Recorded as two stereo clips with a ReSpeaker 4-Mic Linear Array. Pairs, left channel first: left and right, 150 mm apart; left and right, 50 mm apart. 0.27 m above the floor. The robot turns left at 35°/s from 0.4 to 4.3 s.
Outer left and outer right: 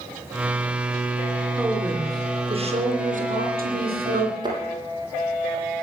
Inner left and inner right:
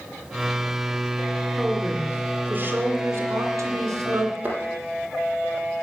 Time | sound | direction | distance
1.6 | a woman speaking | 5° right | 3 m
4.4 | a thud | 30° right (ahead or behind) | 5 m